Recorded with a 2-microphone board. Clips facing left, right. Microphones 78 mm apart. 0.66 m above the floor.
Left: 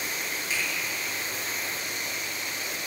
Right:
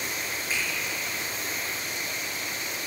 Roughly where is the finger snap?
Right.